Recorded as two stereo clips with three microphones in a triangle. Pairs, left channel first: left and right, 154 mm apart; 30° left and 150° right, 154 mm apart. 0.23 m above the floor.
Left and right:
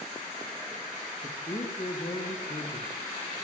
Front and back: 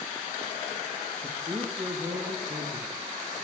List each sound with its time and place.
1.2 s a woman speaking: 150° left, 4.5 m